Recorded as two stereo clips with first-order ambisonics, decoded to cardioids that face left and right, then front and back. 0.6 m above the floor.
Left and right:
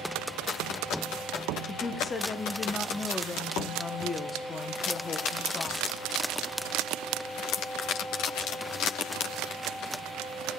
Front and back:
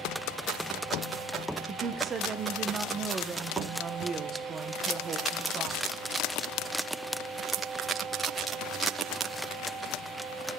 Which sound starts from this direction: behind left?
A woman speaking, at 1.7 s.